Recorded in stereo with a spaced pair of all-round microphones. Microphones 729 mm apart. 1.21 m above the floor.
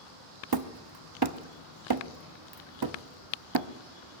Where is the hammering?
35° right (ahead or behind), 0.7 m.